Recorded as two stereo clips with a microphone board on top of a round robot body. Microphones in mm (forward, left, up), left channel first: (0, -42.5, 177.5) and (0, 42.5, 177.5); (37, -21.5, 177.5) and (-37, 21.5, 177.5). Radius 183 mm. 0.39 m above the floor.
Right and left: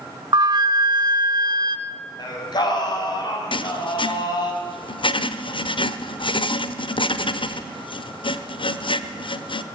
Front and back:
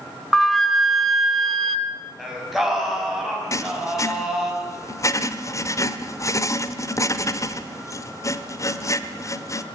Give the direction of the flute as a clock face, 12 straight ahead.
10 o'clock.